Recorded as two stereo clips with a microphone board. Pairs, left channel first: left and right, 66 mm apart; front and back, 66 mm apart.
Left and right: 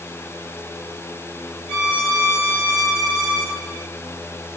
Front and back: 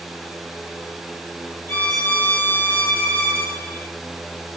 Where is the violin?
25° right, 1.4 m.